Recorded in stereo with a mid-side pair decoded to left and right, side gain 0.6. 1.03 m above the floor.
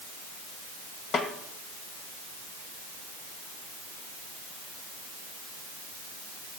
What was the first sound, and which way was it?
A snare drum, 45° left.